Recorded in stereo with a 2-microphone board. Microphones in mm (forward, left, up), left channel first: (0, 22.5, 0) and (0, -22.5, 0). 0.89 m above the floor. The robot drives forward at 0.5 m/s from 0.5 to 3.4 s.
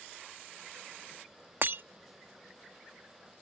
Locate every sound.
1.6 s breaking glass: 50° right (ahead or behind); by 1.8 s 45° right (ahead or behind)